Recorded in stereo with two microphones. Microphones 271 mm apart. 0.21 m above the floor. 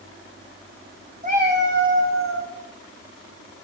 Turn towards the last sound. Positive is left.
turn(degrees=-60)  # may be behind; listen again after turning